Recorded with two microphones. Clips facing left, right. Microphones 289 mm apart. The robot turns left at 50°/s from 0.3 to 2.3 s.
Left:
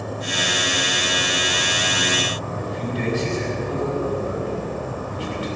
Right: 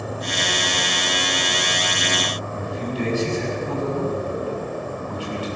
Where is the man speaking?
25° left (ahead or behind), 6.5 m.